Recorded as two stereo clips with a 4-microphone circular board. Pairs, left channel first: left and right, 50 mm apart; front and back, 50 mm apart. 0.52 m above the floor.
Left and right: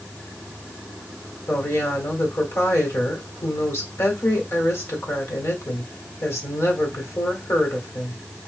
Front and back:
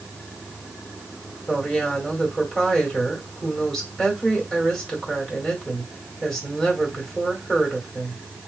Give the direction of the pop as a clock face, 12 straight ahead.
I don't hear a pop.